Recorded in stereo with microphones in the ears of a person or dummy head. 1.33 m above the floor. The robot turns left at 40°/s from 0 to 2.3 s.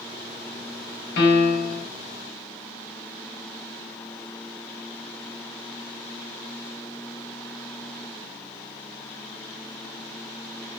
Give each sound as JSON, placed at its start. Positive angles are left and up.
{"t": 1.2, "sound": "a piano", "side_deg": 65, "distance_m": 1.0}